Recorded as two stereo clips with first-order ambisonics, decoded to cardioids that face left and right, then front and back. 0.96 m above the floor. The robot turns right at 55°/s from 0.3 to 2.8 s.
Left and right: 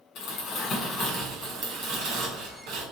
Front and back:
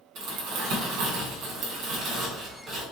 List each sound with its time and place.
0.1 s crumpling: 140° left, 2 m; by 2.8 s 80° right, 2 m